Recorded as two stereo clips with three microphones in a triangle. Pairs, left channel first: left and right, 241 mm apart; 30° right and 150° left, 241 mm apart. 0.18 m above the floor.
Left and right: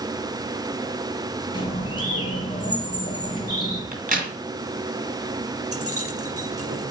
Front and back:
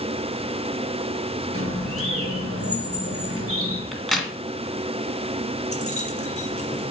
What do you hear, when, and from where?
1.5 s a bird: 160° left, 2.5 m
3.9 s a crack: 120° right, 1.9 m
5.7 s keys jangling: 90° right, 2.5 m